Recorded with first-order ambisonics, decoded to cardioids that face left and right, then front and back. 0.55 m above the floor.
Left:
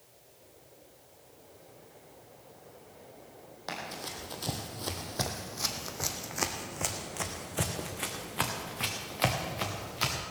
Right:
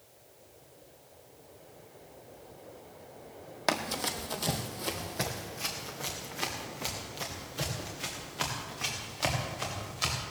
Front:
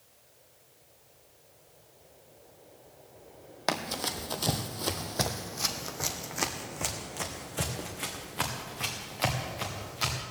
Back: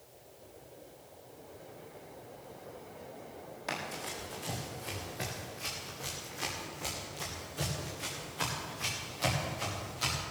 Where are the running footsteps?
40° right, 1.2 m; by 10.2 s 65° left, 4 m.